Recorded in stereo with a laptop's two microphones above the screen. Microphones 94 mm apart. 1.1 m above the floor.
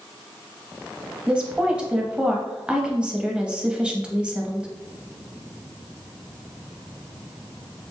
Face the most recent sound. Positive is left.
turn(degrees=-10)  # may be behind; listen again after turning